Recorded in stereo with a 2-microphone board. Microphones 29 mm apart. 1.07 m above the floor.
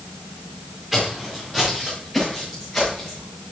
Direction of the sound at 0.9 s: Centre (ahead or behind).